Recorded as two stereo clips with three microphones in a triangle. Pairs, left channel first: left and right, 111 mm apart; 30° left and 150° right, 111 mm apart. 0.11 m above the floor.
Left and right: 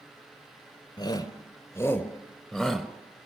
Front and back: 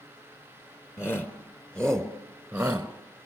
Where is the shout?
85° left, 1.7 m; by 2.9 s 160° right, 1.4 m.